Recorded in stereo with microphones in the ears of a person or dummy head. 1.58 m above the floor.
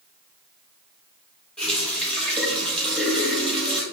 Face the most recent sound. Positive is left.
turn(degrees=5)  # may be behind; listen again after turning